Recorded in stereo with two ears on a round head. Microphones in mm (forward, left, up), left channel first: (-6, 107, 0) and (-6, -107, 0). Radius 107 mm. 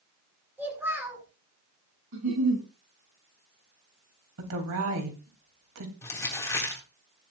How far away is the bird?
No bird in this recording.